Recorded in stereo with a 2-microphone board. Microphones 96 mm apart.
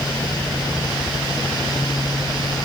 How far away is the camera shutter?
No camera shutter in this recording.